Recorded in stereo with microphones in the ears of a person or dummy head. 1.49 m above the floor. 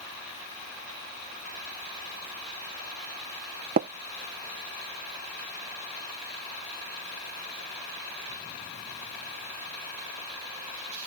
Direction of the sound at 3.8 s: 35° right (ahead or behind).